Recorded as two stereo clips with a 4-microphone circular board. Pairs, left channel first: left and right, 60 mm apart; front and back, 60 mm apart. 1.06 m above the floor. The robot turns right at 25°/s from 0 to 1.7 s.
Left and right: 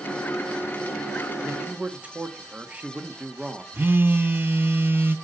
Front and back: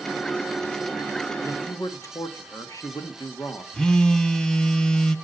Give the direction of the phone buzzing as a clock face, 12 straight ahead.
2 o'clock.